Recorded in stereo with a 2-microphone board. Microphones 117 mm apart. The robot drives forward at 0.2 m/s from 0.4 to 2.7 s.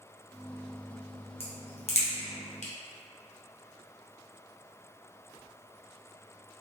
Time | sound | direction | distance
1.4 | a crack | 55° left (ahead or behind) | 0.8 m